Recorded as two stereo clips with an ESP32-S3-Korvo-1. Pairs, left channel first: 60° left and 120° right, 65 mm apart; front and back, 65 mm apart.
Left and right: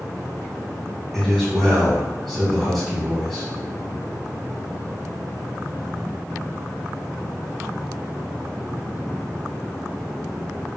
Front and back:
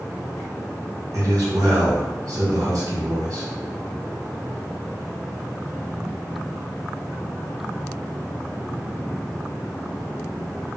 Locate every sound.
1.1 s a man speaking: 150° left, 1.3 m